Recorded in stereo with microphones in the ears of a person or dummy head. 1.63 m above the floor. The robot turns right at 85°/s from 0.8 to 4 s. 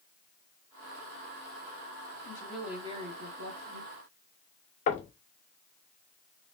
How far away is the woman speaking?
About 1.2 m.